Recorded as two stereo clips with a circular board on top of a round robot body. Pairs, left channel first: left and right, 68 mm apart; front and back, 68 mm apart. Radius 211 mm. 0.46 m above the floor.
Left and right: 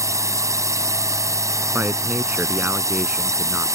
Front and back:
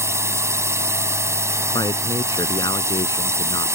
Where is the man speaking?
20° right.